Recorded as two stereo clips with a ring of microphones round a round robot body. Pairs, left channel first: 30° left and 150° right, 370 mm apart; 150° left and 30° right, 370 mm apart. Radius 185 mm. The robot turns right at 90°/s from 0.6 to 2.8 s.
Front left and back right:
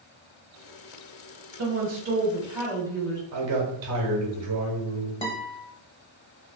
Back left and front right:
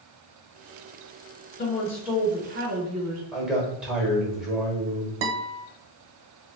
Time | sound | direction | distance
1.6 | a woman speaking | 155° right | 1.1 m
3.3 | a man speaking | 115° right | 1.2 m
5.2 | a guitar | 45° right | 0.7 m